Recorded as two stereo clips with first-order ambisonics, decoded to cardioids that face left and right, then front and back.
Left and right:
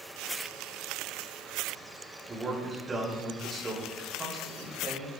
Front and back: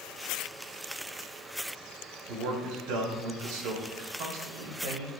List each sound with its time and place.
2.3 s a man speaking: 165° right, 5 m